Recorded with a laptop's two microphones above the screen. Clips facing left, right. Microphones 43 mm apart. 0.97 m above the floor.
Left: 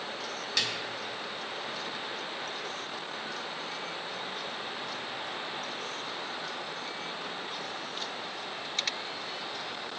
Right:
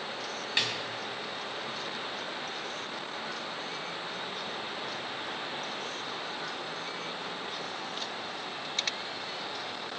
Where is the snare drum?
25° right (ahead or behind), 2.5 m.